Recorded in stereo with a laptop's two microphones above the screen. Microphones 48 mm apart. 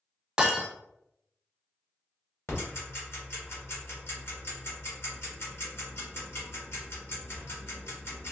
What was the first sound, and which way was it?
Breaking glass, 15° right (ahead or behind).